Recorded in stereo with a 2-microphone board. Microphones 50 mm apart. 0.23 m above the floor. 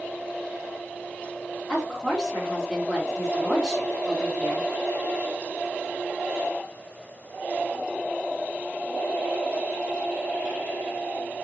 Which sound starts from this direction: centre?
A woman speaking, at 1.7 s.